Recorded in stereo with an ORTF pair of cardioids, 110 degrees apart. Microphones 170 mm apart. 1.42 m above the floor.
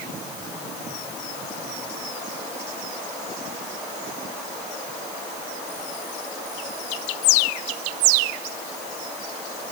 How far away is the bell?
No bell in this recording.